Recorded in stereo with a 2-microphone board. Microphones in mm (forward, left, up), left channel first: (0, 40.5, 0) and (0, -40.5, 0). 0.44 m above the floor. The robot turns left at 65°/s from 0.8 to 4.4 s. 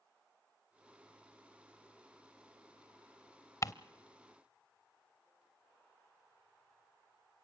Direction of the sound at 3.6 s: 40° left (ahead or behind).